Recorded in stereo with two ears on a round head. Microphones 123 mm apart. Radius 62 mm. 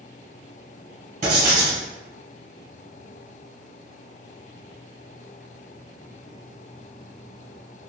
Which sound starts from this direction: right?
Writing, at 1.2 s.